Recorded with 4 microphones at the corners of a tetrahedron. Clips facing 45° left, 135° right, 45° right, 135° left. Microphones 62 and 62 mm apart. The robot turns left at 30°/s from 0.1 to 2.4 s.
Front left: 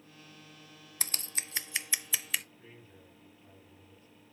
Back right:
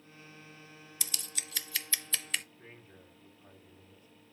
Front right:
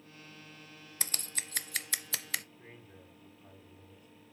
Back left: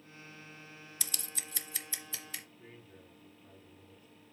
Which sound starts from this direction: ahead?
Scissors, at 1.0 s.